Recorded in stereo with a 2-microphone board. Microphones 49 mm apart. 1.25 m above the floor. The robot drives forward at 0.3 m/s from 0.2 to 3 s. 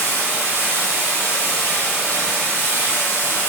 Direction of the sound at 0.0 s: 60° left (ahead or behind).